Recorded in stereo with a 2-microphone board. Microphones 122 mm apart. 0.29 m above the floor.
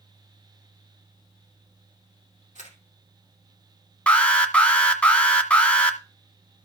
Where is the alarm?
10° left (ahead or behind), 1.6 m.